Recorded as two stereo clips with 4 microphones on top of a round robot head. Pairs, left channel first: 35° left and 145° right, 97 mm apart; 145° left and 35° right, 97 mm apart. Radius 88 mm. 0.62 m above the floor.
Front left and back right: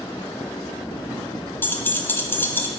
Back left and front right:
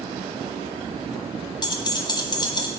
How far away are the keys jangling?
About 0.9 m.